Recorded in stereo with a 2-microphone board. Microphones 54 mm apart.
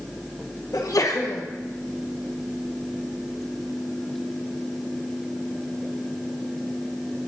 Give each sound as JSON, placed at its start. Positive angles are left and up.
{"t": 0.7, "sound": "a sneeze", "side_deg": 80, "distance_m": 1.2}